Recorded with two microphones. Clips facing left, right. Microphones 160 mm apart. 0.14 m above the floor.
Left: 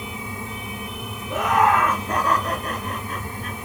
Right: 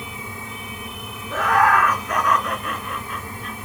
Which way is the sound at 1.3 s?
15° left (ahead or behind).